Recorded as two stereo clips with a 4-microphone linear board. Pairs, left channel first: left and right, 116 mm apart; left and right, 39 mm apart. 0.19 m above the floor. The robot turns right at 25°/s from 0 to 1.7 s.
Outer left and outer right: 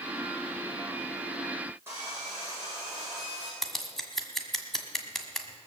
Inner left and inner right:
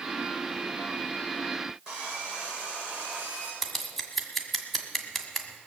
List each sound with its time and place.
1.9 s sawing: 20° right (ahead or behind), 6 m
3.6 s scissors: centre (ahead or behind), 1.5 m